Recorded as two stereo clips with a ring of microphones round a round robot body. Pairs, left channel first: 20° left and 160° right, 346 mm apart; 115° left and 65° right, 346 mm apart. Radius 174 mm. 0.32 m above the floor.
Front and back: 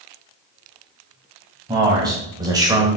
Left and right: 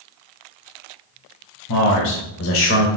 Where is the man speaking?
125° left, 1.9 m; by 2.9 s 135° left, 1.1 m.